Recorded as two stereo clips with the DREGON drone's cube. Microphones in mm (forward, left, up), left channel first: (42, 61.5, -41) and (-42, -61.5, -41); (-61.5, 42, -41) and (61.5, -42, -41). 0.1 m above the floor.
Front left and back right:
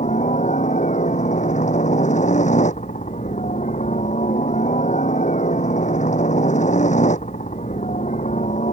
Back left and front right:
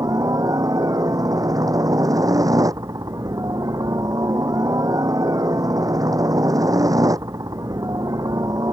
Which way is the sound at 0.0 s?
30° left.